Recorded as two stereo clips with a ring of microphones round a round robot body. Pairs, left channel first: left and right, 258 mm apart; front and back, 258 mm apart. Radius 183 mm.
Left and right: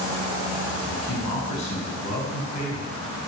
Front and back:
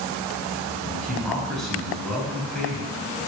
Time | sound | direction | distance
0.8 | a man speaking | 90° left | 5 m